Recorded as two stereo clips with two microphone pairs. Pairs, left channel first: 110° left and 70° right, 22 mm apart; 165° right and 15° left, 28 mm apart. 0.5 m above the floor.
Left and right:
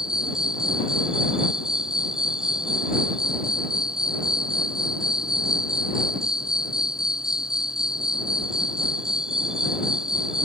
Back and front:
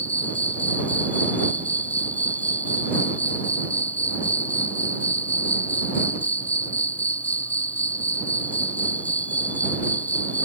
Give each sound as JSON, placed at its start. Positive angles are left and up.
{"t": 0.0, "sound": "an insect", "azimuth_deg": -140}